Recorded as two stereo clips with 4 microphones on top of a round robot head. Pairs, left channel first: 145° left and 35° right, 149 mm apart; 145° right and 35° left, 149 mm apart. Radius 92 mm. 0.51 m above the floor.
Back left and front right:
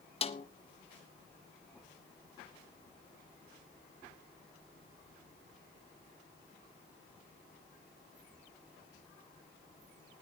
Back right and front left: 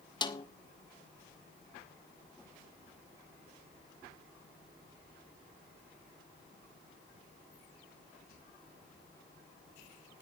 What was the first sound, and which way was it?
A snare drum, 170° left.